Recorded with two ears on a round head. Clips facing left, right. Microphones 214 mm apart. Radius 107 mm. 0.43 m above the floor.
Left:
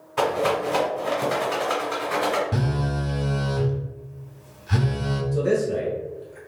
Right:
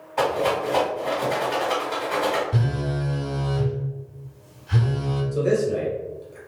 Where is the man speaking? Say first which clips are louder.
Right 1 dB; 15° right (ahead or behind), 1.7 m.